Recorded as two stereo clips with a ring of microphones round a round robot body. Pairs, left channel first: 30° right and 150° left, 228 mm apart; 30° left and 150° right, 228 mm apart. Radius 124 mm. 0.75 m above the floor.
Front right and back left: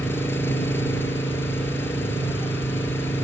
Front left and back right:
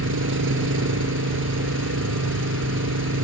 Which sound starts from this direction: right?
An engine running, at 0.0 s.